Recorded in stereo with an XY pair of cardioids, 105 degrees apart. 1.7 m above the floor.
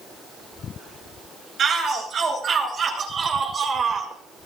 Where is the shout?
50° right, 8.5 m; by 4.1 s 45° right, 5.5 m.